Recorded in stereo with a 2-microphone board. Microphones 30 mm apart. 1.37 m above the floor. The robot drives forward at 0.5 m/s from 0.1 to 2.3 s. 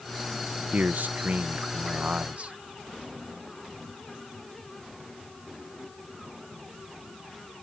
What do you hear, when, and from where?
0.7 s a man speaking: 70° right (ahead or behind); by 2.5 s 50° right (ahead or behind)